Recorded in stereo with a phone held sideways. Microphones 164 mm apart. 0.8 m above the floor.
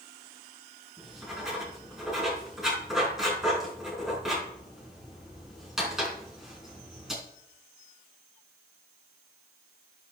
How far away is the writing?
About 4.5 m.